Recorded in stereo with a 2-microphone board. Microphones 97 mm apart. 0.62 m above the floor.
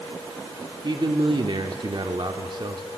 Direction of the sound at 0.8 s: 55° right (ahead or behind).